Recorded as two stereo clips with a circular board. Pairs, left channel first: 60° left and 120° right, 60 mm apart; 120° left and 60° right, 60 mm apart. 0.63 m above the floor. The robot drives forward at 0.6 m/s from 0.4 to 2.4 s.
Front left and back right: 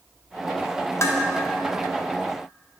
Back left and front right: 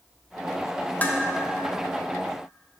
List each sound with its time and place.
1.0 s dishes clattering: 65° left, 0.6 m; by 1.2 s 80° left, 0.6 m